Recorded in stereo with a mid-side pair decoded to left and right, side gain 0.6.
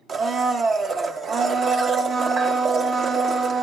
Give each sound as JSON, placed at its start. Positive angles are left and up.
{"t": 0.1, "sound": "a blender", "azimuth_deg": -45, "distance_m": 1.1}